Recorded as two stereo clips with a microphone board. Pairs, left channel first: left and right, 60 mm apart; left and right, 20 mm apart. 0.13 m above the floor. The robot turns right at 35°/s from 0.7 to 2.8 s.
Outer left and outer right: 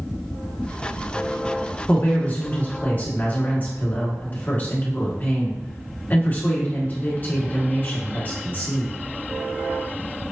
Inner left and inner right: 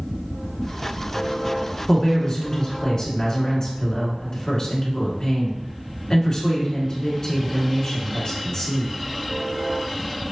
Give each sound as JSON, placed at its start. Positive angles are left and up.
{"t": 1.9, "sound": "a woman speaking", "azimuth_deg": 70, "distance_m": 1.6}